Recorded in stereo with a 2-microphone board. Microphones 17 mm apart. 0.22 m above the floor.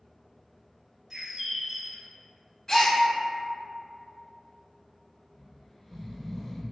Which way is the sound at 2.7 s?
25° left (ahead or behind).